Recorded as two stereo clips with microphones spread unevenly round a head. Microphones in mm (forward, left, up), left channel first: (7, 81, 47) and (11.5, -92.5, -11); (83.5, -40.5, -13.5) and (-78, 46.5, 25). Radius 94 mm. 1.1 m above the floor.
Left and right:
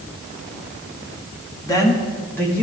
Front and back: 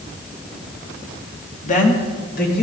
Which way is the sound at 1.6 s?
15° left.